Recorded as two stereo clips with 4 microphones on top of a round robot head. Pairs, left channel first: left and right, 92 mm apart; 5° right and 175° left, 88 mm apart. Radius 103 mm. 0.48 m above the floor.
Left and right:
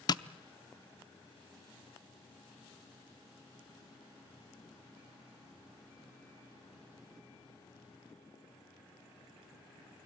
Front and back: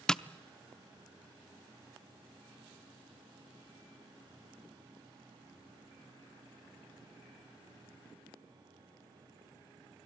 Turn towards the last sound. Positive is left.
turn(degrees=75)